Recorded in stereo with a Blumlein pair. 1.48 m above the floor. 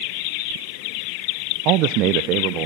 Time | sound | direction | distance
1.6 | a man speaking | 40° right | 0.6 m